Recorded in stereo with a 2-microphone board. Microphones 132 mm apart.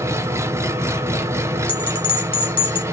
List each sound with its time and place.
0.0 s an engine running: 20° right (ahead or behind), 0.7 m
1.7 s a bell: 40° left (ahead or behind), 1.6 m